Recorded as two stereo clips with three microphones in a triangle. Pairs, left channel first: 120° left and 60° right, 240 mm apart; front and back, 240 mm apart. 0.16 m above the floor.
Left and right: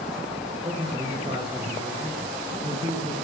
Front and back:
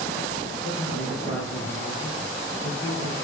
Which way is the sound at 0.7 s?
5° left.